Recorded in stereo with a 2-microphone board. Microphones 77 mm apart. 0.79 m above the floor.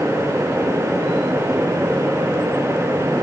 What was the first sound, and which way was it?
Only background noise.